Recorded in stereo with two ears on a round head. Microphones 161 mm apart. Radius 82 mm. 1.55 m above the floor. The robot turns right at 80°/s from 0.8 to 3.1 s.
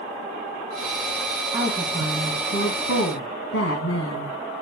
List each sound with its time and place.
1.5 s a woman speaking: 20° right, 2.0 m; by 4.3 s 105° left, 2.0 m